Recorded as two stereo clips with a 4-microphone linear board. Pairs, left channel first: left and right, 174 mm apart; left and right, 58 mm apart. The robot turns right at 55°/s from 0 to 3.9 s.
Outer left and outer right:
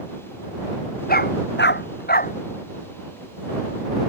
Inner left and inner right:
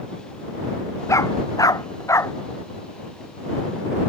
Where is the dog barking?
60° left (ahead or behind); by 2.4 s 50° left (ahead or behind).